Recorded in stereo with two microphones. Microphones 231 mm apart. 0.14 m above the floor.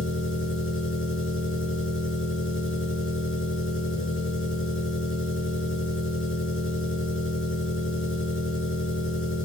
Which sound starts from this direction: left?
An engine running, at 0.0 s.